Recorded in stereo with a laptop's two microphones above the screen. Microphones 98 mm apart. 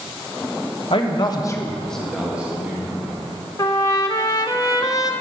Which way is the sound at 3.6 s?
40° left (ahead or behind).